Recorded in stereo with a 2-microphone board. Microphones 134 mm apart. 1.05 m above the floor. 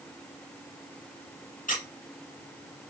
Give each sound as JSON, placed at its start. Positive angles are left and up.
{"t": 1.7, "sound": "a squeak", "side_deg": 75, "distance_m": 1.1}